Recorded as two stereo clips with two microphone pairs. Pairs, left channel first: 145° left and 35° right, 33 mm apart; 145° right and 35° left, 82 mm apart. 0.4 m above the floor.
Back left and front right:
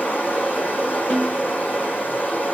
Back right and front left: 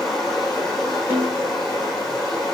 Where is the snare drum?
105° left, 4.5 m.